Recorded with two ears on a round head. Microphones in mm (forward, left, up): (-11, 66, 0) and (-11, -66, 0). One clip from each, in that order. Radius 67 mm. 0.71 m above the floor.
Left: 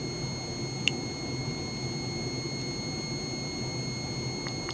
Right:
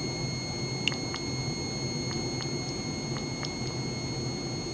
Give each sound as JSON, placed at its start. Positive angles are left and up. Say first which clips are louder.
{"t": 0.9, "sound": "a finger snap", "louder": "left 2 dB", "side_deg": 15}